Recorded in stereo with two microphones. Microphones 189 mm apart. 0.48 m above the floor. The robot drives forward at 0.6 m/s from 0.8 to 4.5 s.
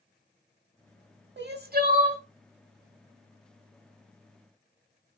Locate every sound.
1.4 s crying: 70° right (ahead or behind), 0.6 m; by 2.2 s 40° right (ahead or behind), 0.9 m